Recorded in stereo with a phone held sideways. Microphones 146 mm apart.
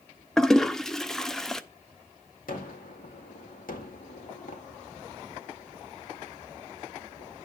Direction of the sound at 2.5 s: 80° left.